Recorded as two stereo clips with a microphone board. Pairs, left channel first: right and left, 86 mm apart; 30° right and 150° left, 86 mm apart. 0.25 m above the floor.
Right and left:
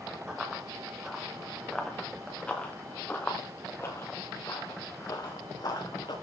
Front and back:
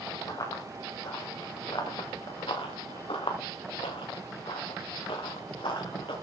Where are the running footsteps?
10° left, 3.5 m; by 6.1 s 55° right, 3.5 m.